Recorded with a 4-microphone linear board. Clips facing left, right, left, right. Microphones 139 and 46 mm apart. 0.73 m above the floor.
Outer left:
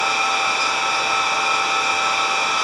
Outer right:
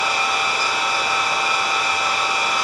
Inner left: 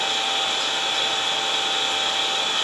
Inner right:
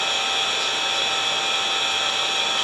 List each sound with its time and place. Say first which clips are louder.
0.0 s an engine running: outer left 1 dB, even; 35° right (ahead or behind), 1.9 m